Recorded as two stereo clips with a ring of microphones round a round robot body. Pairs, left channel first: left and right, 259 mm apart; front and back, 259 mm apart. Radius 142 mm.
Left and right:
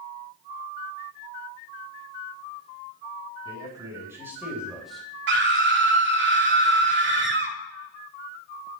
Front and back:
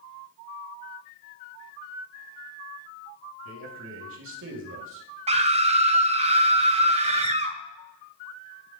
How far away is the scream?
About 1.3 m.